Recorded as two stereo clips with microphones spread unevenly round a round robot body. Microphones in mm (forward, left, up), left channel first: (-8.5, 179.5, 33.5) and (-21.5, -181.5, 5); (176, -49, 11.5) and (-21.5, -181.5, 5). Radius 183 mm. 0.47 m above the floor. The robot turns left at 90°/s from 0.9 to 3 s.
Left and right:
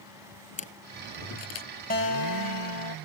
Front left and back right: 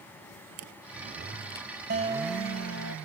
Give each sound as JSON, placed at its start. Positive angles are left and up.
{"t": 0.6, "sound": "a camera shutter", "azimuth_deg": 160}
{"t": 1.9, "sound": "a guitar", "azimuth_deg": 155}